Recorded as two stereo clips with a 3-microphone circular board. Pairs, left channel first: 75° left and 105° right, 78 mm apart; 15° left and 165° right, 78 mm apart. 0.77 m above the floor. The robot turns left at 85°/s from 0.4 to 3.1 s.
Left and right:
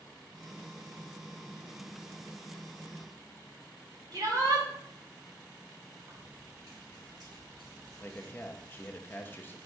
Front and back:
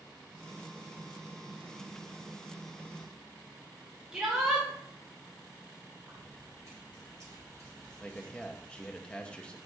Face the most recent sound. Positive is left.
turn(degrees=75)